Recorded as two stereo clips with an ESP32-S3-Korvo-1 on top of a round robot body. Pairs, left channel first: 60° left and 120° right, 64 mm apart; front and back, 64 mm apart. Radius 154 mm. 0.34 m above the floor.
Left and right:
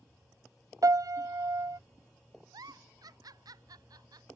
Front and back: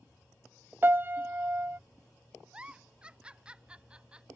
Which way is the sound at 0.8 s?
125° right.